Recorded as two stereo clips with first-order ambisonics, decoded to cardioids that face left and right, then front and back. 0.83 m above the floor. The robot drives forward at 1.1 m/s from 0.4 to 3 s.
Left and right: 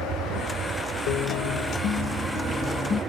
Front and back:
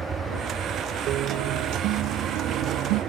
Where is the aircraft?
125° right; by 3.1 s 145° right.